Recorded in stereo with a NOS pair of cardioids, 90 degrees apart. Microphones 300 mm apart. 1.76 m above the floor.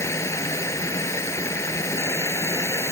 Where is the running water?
10° left.